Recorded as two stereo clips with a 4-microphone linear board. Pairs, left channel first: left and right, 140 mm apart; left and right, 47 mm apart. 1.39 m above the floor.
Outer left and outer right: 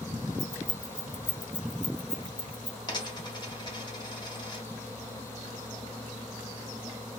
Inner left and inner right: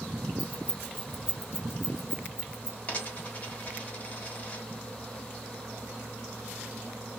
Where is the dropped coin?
30° left (ahead or behind), 1.1 m.